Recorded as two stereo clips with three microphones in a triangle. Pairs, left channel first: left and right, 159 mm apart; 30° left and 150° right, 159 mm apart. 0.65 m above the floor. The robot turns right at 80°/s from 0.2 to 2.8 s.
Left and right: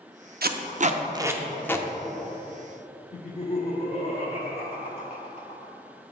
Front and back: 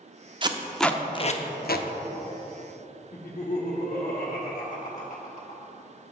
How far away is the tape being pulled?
About 0.5 m.